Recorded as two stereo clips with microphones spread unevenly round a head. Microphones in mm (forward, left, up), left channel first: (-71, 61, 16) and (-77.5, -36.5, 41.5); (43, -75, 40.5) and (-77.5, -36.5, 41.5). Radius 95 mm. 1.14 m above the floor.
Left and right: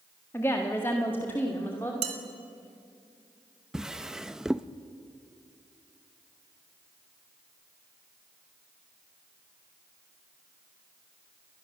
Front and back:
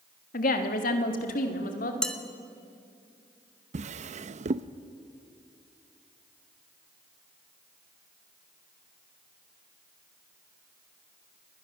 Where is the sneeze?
No sneeze in this recording.